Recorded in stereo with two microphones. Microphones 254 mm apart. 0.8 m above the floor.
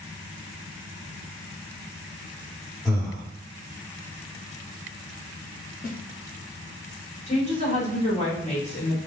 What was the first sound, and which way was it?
Breathing, centre (ahead or behind).